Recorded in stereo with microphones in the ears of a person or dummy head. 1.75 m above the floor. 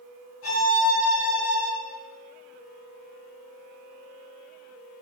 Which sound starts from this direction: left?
A violin, at 0.4 s.